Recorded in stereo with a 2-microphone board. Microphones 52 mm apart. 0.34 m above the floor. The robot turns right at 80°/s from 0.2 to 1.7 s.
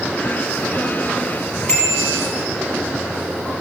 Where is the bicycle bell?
20° left (ahead or behind), 5 m.